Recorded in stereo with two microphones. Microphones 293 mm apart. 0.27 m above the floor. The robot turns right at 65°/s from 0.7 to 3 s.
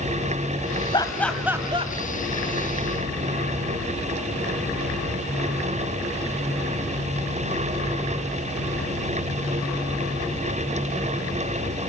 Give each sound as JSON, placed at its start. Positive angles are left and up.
{"t": 0.9, "sound": "laughter", "side_deg": 15, "distance_m": 1.8}